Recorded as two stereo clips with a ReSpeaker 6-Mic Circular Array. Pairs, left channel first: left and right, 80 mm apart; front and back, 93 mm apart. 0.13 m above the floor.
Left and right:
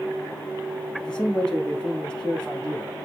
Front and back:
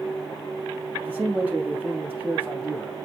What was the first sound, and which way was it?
A man speaking, 150° left.